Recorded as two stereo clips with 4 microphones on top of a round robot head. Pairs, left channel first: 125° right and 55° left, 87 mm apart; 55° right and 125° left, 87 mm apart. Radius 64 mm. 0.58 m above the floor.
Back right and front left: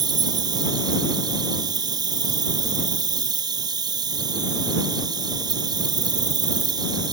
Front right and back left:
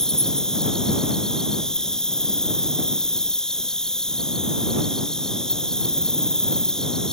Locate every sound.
0.0 s an insect: 25° left